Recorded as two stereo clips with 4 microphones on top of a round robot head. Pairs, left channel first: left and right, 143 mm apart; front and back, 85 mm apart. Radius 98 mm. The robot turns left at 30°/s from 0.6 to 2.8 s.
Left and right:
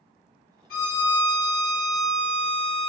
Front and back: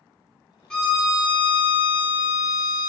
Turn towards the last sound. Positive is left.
turn(degrees=15)